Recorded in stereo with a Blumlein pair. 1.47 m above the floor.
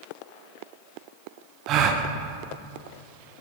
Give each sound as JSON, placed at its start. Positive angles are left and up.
{"t": 1.7, "sound": "a gasp", "azimuth_deg": -35, "distance_m": 0.7}